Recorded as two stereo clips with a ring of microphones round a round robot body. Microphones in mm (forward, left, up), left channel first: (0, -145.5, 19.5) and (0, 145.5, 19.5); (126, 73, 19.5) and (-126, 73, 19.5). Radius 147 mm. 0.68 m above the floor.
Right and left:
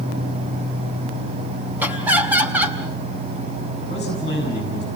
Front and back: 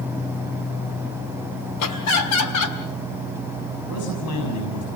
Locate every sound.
1.8 s laughter: 5° left, 3.5 m
3.9 s a man speaking: 25° right, 5.5 m